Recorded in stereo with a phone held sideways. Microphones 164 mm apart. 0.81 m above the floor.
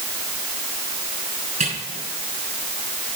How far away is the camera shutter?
About 6.5 m.